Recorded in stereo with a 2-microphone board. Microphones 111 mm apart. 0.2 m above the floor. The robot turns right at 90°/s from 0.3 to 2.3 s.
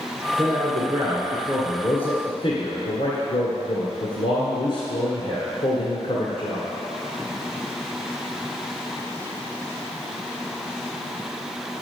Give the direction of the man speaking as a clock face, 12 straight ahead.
3 o'clock.